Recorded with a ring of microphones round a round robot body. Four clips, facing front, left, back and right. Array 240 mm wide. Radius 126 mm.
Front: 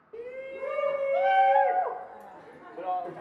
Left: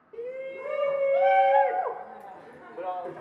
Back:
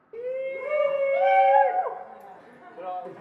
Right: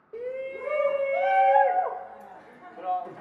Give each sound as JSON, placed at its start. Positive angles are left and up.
{"t": 0.1, "sound": "a shout", "azimuth_deg": -140, "distance_m": 1.4}